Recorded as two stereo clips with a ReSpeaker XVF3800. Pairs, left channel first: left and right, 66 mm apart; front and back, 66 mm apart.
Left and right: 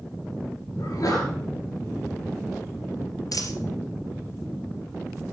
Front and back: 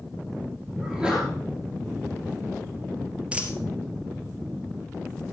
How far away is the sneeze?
About 3 m.